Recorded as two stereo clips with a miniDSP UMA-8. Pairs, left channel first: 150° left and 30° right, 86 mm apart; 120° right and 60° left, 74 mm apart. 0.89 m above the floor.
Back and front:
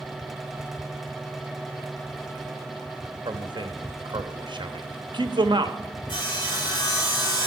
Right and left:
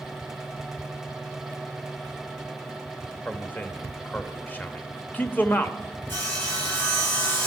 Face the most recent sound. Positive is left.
turn(degrees=180)